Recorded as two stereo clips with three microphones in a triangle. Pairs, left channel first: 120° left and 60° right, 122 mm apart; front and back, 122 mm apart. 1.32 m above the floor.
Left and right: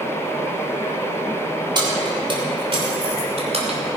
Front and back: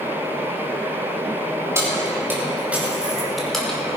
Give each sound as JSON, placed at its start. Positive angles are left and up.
{"t": 1.8, "sound": "keys jangling", "azimuth_deg": -115, "distance_m": 3.5}